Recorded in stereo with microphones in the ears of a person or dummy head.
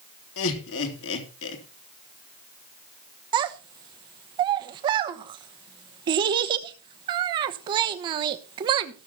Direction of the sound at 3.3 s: 30° right (ahead or behind).